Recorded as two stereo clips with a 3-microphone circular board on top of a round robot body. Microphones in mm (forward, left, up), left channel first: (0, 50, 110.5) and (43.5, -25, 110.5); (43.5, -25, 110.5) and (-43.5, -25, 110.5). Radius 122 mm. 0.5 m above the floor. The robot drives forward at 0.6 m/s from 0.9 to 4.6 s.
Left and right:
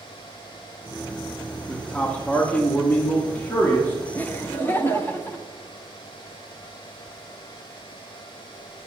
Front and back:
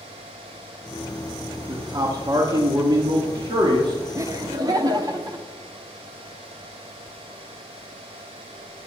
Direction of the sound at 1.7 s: 170° right.